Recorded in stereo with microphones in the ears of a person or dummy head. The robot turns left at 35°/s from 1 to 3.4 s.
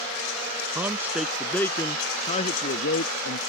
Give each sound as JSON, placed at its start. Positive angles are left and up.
{"t": 0.8, "sound": "a man speaking", "azimuth_deg": -170}